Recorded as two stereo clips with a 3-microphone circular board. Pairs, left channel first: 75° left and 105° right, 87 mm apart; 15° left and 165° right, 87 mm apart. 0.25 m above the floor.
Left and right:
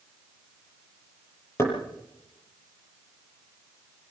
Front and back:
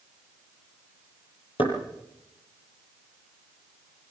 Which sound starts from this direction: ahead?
Knocking, at 1.6 s.